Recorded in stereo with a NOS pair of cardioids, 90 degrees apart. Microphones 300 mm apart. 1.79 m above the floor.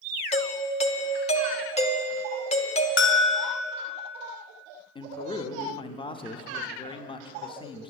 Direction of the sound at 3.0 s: 45° left.